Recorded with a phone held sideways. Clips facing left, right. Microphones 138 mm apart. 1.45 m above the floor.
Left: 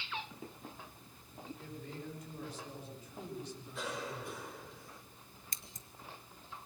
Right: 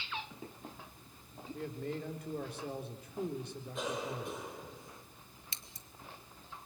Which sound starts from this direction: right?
A man speaking, at 1.5 s.